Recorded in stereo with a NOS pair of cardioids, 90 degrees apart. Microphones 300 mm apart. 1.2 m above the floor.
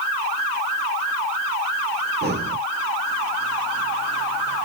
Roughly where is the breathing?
Ahead right.